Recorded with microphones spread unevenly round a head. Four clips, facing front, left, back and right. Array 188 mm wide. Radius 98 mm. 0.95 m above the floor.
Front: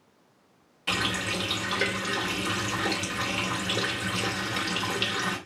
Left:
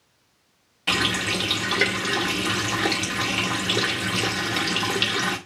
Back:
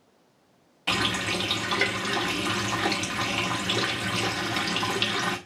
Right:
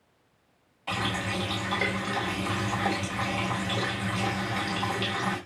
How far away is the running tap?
About 1.8 m.